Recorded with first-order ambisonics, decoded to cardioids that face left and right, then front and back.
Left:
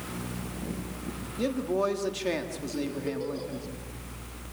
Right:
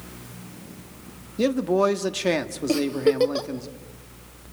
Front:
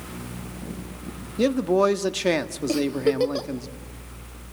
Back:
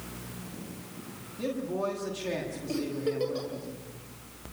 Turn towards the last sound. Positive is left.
turn(degrees=-55)